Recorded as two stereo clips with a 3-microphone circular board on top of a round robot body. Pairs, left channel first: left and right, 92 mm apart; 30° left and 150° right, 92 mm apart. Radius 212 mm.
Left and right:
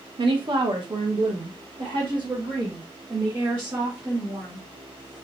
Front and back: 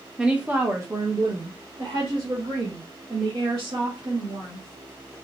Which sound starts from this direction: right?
A woman speaking, at 0.2 s.